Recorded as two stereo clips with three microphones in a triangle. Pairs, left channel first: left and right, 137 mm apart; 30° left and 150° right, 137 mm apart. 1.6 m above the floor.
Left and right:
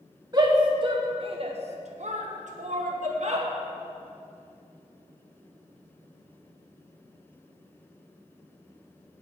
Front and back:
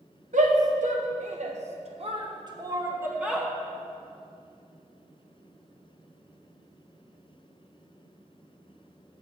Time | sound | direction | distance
0.3 | a shout | 145° right | 1.9 m